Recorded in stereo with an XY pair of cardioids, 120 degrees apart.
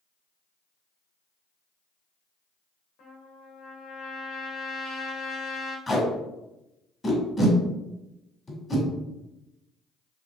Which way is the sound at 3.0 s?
70° left.